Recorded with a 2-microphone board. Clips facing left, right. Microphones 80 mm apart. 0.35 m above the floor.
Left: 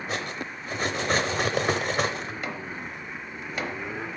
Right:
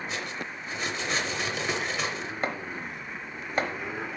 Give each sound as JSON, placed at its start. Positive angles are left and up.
{"t": 0.1, "sound": "cutlery clinking", "side_deg": 50, "distance_m": 0.8}
{"t": 2.4, "sound": "chopping", "side_deg": -40, "distance_m": 0.9}